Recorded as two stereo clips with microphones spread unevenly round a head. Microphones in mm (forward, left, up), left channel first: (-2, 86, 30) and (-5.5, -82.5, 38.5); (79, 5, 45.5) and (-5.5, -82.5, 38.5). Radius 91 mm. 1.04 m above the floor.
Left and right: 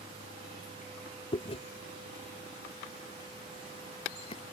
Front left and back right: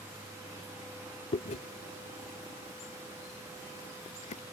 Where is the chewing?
30° left.